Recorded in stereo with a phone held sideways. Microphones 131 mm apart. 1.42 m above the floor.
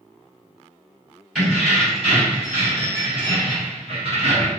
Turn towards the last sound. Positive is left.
turn(degrees=-60)  # may be behind; listen again after turning